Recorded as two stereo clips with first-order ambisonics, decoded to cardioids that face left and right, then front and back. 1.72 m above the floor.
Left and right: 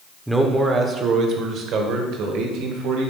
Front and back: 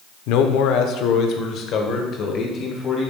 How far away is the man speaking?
About 0.8 m.